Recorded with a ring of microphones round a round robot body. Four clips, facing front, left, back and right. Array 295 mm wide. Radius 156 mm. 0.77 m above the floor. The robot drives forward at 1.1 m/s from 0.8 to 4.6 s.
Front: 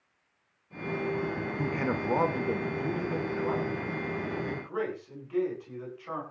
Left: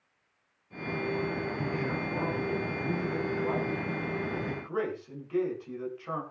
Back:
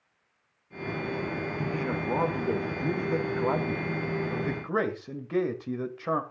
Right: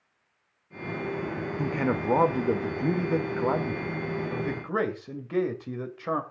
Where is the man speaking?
65° right, 2.5 m; by 6.2 s 135° right, 3 m.